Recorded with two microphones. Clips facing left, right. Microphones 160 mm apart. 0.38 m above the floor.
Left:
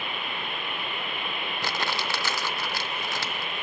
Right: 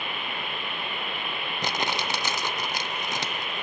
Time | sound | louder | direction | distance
1.6 | crumpling | right 2 dB | 20° right (ahead or behind) | 0.6 m